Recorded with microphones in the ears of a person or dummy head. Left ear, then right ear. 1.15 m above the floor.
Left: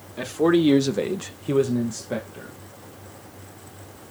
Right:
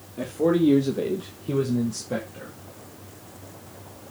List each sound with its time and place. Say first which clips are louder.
0.2 s a man speaking: left 2 dB; 45° left (ahead or behind), 1.7 m; by 2.5 s 10° left (ahead or behind), 2 m